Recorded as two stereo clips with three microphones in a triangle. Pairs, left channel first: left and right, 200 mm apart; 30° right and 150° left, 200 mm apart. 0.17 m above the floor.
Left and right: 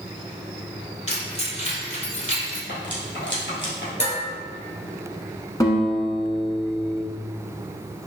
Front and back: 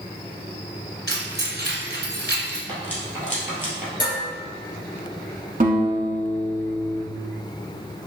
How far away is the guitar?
About 1.0 m.